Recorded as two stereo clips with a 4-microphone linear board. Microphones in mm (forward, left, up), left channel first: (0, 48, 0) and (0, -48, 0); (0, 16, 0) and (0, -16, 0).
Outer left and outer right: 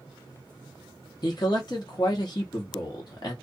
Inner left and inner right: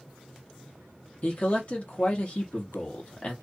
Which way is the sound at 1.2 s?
45° left (ahead or behind).